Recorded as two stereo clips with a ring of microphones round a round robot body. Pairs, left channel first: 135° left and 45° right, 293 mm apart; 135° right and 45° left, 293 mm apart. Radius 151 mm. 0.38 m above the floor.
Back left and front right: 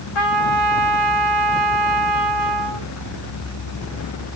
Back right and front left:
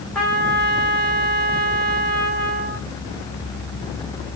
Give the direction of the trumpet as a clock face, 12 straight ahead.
7 o'clock.